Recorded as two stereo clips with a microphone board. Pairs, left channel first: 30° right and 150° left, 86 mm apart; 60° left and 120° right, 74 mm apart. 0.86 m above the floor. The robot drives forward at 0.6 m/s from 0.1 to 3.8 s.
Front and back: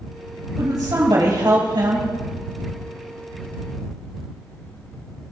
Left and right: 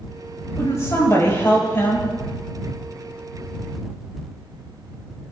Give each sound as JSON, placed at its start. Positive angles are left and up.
{"t": 0.6, "sound": "a woman speaking", "azimuth_deg": 110, "distance_m": 4.0}